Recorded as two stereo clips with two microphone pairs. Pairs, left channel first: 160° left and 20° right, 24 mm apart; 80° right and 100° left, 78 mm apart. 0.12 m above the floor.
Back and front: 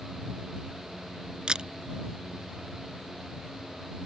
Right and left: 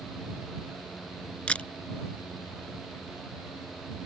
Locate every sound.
1.5 s a camera shutter: 20° right